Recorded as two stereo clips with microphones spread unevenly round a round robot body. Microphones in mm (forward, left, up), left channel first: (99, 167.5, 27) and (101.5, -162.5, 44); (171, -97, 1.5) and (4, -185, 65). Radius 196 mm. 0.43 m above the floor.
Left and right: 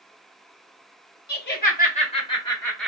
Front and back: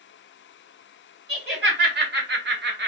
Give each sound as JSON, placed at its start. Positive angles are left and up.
{"t": 1.3, "sound": "laughter", "azimuth_deg": 150, "distance_m": 1.7}